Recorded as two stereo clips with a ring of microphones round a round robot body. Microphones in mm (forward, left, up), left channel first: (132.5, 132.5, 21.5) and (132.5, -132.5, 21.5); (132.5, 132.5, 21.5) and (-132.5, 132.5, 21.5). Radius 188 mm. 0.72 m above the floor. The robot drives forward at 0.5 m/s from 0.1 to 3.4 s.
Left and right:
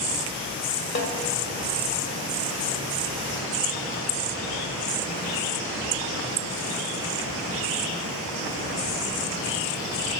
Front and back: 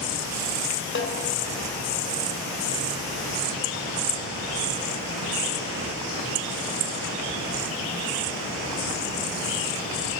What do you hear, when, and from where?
0.9 s a snare drum: 45° left, 2 m